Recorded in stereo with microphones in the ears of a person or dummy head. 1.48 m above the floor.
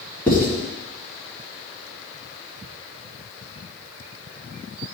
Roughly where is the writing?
Centre.